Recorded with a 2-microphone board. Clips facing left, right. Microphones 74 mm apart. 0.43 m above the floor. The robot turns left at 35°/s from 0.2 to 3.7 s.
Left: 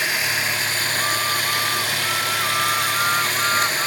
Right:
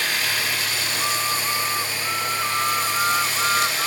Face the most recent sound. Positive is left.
turn(degrees=45)